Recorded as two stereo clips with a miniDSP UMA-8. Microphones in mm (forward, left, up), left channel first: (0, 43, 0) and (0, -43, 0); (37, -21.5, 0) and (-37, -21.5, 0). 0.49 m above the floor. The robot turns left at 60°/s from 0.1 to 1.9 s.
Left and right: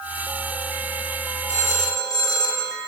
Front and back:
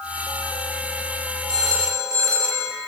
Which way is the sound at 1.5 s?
155° left.